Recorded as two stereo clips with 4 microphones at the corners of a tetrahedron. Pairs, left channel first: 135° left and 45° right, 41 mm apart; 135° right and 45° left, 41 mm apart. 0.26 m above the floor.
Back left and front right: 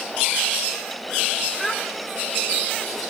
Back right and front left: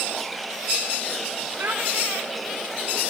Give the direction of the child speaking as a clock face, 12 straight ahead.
10 o'clock.